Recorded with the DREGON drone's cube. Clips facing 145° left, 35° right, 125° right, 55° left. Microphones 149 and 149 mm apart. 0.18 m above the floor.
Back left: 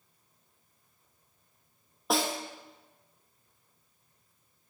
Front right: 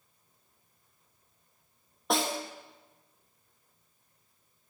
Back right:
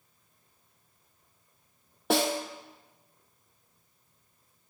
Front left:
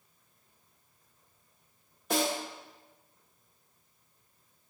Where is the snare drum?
125° right, 0.8 m.